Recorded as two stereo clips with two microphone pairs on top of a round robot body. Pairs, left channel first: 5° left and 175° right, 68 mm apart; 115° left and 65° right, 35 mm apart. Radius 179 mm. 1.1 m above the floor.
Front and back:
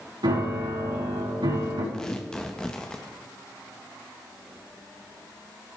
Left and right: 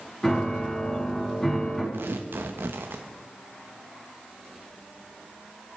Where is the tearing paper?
80° right, 0.8 m.